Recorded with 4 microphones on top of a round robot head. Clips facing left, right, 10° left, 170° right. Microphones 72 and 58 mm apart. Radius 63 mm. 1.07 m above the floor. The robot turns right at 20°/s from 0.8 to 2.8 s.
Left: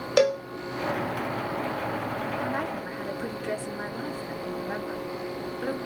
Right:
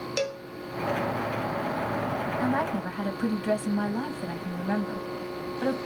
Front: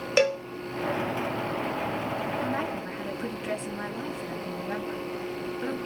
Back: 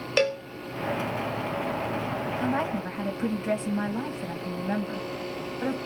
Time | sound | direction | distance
0.2 | a cowbell | 90° left | 0.7 m
2.4 | a woman speaking | 130° right | 1.6 m